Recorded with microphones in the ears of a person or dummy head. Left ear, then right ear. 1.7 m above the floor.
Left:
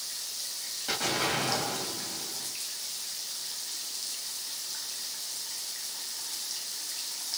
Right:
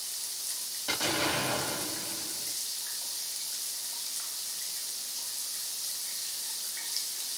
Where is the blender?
I don't hear a blender.